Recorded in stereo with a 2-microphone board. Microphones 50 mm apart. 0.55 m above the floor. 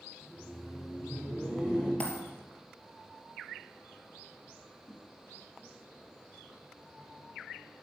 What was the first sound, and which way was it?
Laughter, 5° left (ahead or behind).